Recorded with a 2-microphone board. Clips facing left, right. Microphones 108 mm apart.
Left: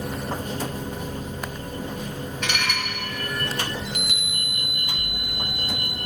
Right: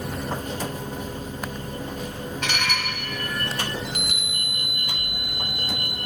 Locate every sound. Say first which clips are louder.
2.4 s dishes clattering: right 1 dB; 45° right (ahead or behind), 1.2 m
3.9 s a chime: even; 45° right (ahead or behind), 0.9 m